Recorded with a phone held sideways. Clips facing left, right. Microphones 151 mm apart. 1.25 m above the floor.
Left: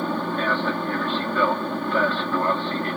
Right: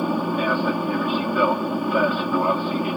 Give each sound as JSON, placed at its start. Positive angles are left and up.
{"t": 0.0, "sound": "an aircraft", "side_deg": -10}